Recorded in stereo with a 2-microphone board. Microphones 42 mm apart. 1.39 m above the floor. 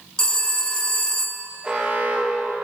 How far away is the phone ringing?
About 1.2 m.